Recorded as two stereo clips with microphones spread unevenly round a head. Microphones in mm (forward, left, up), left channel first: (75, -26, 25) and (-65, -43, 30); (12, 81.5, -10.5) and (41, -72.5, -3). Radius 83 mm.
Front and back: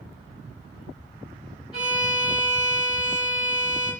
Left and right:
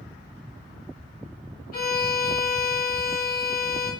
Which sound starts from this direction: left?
A violin, at 1.7 s.